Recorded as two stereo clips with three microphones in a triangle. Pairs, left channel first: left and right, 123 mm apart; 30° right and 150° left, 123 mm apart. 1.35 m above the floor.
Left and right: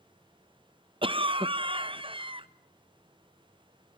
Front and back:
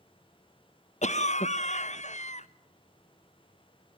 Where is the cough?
45° right, 1.0 m.